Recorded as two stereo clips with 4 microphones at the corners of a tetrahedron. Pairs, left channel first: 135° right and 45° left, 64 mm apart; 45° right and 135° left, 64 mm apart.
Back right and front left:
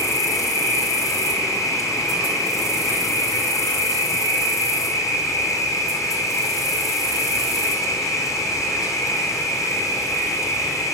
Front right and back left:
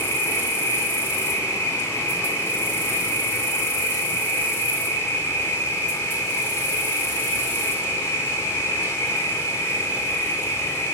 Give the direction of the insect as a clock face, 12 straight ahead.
3 o'clock.